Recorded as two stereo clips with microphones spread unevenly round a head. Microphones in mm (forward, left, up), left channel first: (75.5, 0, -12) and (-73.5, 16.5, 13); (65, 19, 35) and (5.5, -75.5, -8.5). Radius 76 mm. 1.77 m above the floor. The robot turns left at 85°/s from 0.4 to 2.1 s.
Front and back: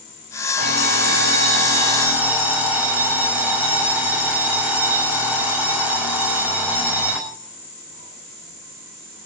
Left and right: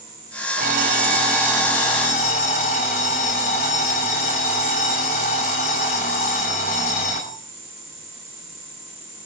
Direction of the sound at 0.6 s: 135° right.